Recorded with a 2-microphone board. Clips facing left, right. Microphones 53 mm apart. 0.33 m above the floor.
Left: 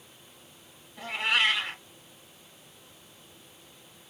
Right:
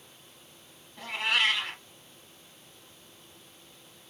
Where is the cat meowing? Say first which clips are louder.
Left 1 dB; 5° left (ahead or behind), 1.0 m.